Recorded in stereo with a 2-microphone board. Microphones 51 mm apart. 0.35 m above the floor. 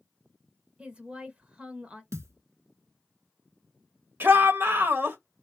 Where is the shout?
45° right (ahead or behind), 1.2 m.